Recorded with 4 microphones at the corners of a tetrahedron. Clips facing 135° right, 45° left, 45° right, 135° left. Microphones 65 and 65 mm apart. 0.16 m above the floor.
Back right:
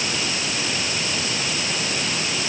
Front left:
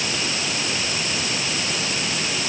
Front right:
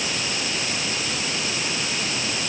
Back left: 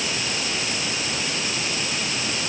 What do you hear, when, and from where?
Only background noise.